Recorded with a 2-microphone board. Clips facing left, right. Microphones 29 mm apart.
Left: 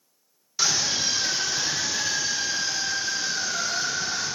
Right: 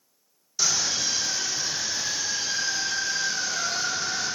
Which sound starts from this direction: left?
A scream, at 0.6 s.